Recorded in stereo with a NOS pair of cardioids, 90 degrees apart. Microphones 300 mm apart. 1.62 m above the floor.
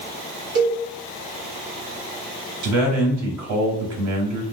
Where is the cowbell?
40° right, 1.2 m.